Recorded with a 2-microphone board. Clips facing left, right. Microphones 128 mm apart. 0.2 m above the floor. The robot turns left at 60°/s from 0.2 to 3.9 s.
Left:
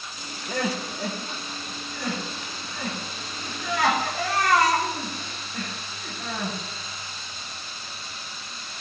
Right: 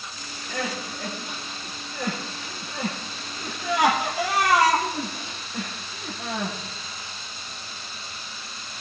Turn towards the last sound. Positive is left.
turn(degrees=-15)  # may be behind; listen again after turning